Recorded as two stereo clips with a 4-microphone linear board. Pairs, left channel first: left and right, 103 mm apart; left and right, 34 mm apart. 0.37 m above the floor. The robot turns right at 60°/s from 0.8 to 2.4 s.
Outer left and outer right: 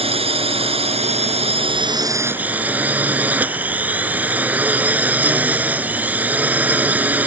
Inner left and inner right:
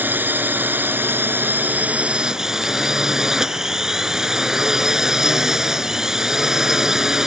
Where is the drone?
110° right; by 7.3 s 15° right.